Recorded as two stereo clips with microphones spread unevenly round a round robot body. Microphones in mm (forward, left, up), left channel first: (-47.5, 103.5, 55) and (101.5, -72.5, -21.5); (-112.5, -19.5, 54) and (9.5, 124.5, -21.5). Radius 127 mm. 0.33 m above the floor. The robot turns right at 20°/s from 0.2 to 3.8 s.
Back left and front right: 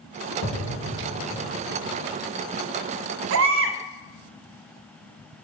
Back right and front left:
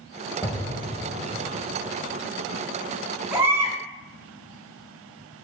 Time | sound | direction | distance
0.4 | an explosion | 135° left | 1.4 m
3.3 | a baby crying | 30° right | 0.9 m